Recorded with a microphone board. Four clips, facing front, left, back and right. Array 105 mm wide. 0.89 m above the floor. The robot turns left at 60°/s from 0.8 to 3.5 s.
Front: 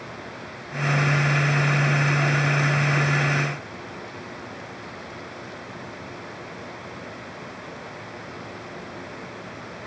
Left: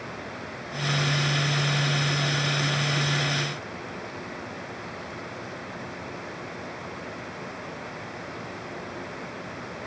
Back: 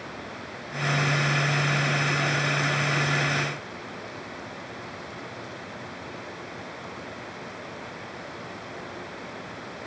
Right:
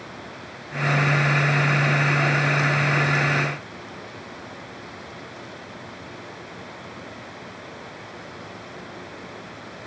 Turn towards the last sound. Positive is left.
No sound to turn to.